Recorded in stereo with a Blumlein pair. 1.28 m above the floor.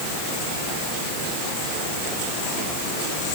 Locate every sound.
Only background noise.